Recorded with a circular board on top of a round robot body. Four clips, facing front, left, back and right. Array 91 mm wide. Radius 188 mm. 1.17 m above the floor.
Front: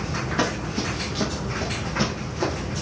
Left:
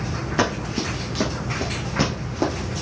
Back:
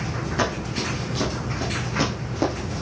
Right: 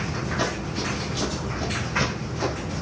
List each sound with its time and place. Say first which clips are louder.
0.4 s running footsteps: left 7 dB, even; 80° left, 1.7 m; by 2.5 s 130° left, 1.5 m